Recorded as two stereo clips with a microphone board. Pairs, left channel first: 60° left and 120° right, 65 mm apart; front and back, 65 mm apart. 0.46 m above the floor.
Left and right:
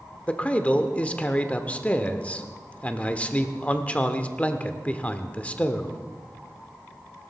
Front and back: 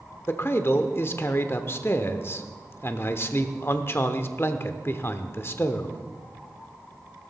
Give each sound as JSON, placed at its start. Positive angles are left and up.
{"t": 0.3, "sound": "a man speaking", "azimuth_deg": 5, "distance_m": 0.9}